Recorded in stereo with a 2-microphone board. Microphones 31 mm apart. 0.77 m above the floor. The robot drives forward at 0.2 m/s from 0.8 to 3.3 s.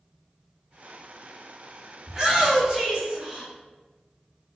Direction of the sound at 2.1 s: 20° right (ahead or behind).